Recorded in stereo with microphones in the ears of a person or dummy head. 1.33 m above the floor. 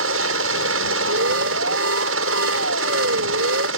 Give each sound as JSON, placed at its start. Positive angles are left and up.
{"t": 0.0, "sound": "a helicopter", "side_deg": -75}
{"t": 1.1, "sound": "an alarm", "side_deg": -75}